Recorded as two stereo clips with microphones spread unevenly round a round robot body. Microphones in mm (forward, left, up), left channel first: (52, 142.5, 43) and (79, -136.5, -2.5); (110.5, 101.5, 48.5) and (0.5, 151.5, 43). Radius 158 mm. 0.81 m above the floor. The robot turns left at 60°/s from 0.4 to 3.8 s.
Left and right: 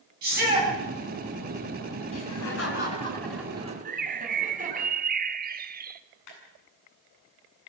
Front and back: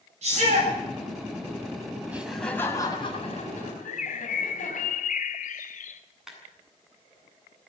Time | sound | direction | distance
0.2 | a shout | 145° right | 7 m
2.1 | laughter | 80° left | 5.5 m
3.9 | a bird | 25° right | 1.0 m
6.3 | a clap | 70° left | 8.5 m